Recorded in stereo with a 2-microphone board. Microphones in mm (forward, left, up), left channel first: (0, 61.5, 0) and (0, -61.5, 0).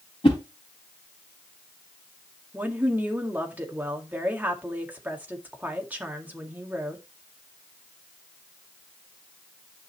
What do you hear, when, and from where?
0.2 s a whoosh: 45° left (ahead or behind), 4 m
2.5 s a woman speaking: 15° right (ahead or behind), 2.0 m